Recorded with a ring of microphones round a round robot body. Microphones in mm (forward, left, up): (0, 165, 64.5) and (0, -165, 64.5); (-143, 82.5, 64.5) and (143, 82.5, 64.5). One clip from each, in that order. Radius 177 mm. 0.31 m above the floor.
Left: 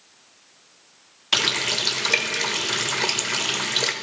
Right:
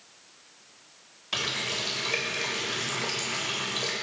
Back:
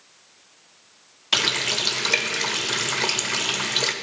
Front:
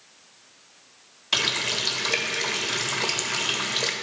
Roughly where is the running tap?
Behind left.